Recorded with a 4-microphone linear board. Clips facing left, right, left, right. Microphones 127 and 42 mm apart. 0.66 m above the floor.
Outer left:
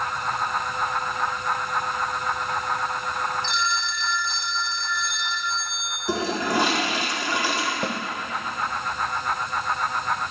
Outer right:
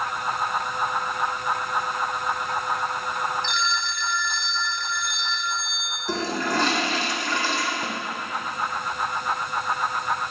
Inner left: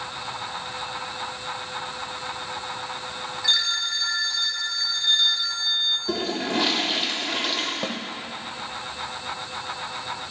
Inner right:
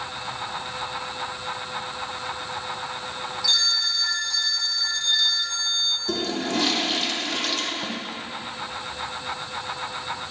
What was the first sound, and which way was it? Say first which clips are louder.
A phone ringing: even, inner left 1 dB; 35° left (ahead or behind).